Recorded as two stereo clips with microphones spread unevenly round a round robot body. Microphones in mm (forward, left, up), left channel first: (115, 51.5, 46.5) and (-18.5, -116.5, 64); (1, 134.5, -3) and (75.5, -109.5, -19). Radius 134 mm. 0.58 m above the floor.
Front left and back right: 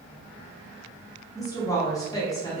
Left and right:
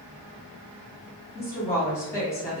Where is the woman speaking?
35° left, 1.0 m.